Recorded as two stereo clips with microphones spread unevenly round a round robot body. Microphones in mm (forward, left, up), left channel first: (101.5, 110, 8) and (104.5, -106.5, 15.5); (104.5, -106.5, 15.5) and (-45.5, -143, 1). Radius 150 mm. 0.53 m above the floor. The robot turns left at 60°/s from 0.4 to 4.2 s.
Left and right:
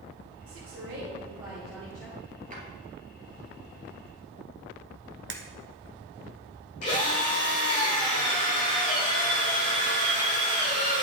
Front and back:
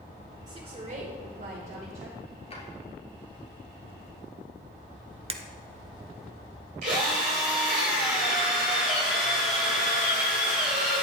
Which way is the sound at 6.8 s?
150° left.